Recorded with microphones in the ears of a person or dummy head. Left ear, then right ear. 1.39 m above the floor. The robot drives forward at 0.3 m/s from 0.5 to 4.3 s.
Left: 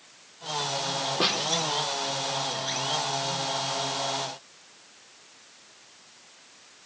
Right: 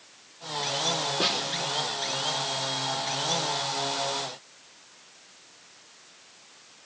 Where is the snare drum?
20° left (ahead or behind), 4 m.